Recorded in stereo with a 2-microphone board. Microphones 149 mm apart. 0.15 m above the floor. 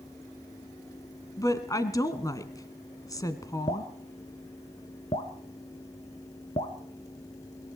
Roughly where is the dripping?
Left.